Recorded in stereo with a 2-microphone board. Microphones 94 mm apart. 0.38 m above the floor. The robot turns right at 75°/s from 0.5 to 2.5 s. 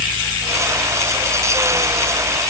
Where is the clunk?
I don't hear a clunk.